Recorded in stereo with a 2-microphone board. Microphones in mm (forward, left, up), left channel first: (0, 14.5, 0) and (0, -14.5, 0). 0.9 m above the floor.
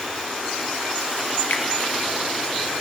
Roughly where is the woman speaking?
I don't hear a woman speaking.